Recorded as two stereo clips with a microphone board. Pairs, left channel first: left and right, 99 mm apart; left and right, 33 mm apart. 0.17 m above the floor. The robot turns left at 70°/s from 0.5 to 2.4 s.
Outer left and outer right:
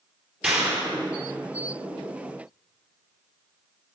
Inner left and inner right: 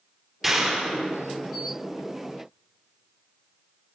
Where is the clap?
15° right, 3 m; by 0.9 s 50° right, 3 m.